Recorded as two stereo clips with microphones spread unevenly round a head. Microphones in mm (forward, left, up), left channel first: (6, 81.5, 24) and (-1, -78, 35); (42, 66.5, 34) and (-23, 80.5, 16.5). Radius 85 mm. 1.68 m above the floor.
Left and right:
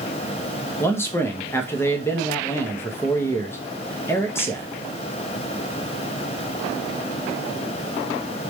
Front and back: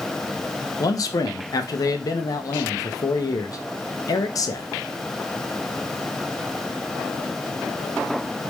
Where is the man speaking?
10° left, 1.0 m.